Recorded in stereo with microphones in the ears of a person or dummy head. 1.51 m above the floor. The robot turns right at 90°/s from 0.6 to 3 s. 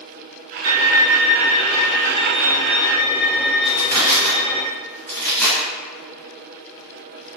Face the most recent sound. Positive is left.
turn(degrees=15)  # may be behind; listen again after turning